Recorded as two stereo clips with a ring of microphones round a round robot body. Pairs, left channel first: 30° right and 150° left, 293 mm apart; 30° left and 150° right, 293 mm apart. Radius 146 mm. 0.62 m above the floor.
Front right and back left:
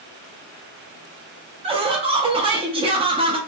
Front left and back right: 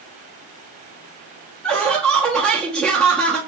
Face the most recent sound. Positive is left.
turn(degrees=115)